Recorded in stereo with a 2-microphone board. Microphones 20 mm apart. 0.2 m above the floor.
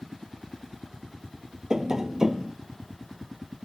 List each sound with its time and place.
1.7 s tapping: 35° right (ahead or behind)